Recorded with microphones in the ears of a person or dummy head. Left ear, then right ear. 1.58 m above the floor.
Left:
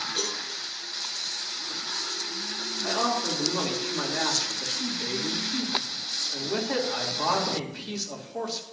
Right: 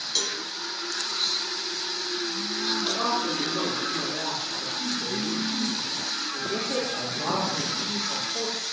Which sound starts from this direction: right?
A cowbell, at 0.1 s.